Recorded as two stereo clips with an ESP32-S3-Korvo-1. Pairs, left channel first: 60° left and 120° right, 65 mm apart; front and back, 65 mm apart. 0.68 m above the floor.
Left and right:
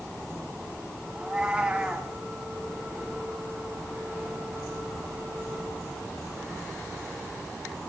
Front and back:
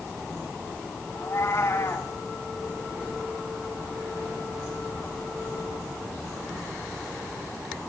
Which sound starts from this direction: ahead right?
A cat meowing, at 1.1 s.